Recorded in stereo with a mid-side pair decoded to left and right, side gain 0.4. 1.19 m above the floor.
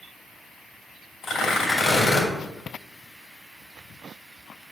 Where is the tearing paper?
55° left, 2.5 m.